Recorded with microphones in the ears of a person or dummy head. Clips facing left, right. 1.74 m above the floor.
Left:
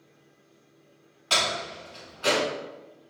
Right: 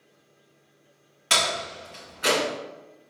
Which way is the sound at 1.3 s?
30° right (ahead or behind).